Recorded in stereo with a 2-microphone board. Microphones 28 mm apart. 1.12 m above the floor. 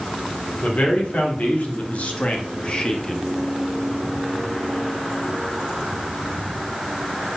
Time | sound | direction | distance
0.6 | a man speaking | 85° left | 3 m